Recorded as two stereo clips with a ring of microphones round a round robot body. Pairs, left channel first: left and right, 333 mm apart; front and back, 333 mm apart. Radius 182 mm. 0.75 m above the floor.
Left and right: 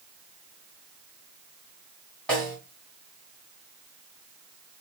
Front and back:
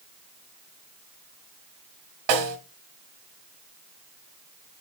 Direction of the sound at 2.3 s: Straight behind.